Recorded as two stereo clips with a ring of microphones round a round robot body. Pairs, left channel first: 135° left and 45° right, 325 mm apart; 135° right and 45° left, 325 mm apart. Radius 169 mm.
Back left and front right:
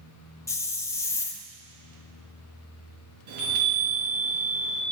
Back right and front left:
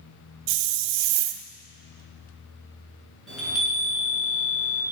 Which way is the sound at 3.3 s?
45° right.